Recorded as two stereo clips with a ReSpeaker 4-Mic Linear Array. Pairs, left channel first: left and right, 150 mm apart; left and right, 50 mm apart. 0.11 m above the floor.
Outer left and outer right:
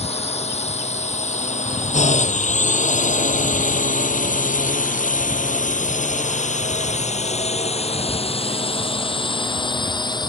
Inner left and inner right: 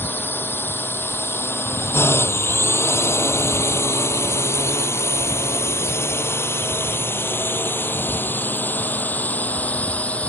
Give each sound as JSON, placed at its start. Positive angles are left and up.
{"t": 0.0, "sound": "a drone", "side_deg": 45}